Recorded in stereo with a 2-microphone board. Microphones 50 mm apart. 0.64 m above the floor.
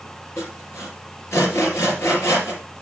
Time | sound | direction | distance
0.4 | sawing | 60° left (ahead or behind) | 3 m